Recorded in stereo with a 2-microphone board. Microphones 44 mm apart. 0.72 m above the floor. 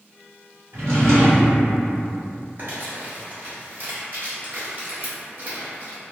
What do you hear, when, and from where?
0.7 s a drawer: 75° right (ahead or behind), 1.2 m
2.6 s crumpling: 45° right (ahead or behind), 1.1 m